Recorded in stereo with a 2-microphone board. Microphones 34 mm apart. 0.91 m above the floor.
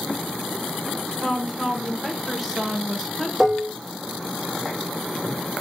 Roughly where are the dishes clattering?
Centre.